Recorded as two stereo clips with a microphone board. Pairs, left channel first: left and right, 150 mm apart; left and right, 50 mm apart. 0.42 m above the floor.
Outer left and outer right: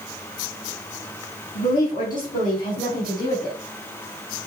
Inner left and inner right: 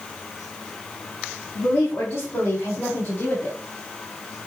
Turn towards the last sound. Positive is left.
turn(degrees=60)  # may be behind; listen again after turning